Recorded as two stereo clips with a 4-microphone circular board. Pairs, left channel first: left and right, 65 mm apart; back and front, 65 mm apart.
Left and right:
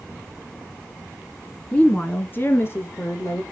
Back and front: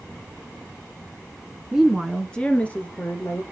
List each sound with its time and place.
1.7 s a woman speaking: 60° left, 1.2 m; by 3.4 s 125° left, 2.5 m